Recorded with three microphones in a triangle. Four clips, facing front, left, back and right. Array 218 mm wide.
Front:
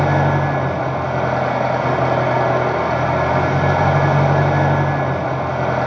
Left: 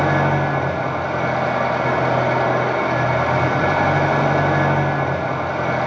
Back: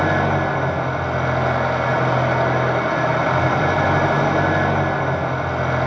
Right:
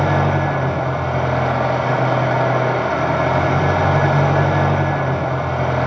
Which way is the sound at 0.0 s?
5° right.